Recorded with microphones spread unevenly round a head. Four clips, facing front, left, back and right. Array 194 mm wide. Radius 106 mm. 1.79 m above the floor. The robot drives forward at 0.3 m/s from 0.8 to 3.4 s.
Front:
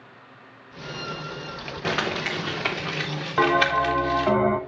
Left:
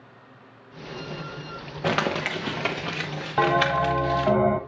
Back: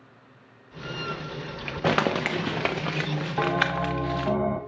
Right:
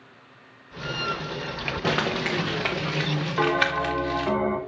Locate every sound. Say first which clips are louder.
1.8 s crumpling: left 1 dB, back 3 dB; 165° left, 0.7 m; by 4.3 s 170° left, 1.1 m
3.4 s a bell: left 3 dB, front 6 dB; 70° left, 1.2 m